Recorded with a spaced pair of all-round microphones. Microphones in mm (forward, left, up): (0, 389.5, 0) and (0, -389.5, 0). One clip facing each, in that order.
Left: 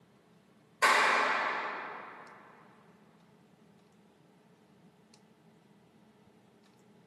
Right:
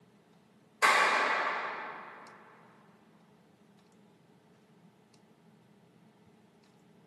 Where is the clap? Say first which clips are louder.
Even; 5° left (ahead or behind), 3.5 m.